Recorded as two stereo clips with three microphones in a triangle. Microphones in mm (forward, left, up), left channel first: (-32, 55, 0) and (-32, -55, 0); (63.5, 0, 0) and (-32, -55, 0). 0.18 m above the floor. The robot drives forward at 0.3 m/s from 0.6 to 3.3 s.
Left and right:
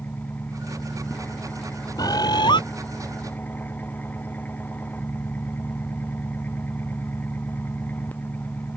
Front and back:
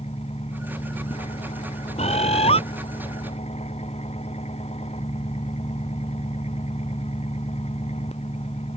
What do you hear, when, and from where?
0.0 s an engine running: 15° left
2.0 s a bird: 40° left; by 2.6 s 50° left